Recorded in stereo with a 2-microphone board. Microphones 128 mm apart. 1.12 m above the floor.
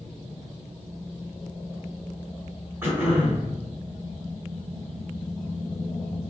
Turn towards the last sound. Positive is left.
turn(degrees=-15)  # may be behind; listen again after turning